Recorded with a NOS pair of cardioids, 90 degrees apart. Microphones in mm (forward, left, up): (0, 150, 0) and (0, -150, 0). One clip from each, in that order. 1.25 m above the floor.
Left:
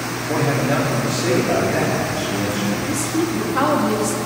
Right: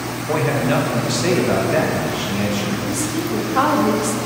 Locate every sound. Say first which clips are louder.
0.3 s a man speaking: right 1 dB; 65° right, 1.6 m
2.9 s a woman speaking: left 1 dB; 10° right, 1.1 m